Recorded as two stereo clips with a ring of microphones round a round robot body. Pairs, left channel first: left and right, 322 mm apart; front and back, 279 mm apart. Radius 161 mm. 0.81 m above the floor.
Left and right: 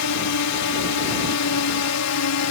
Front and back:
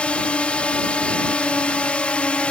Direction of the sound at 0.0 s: 85° left.